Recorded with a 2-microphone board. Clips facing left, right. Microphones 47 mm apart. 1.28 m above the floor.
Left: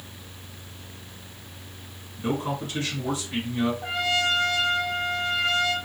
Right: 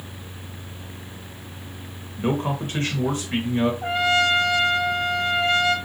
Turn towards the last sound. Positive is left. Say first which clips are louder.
# right 5 dB
turn(degrees=-35)  # may be behind; listen again after turning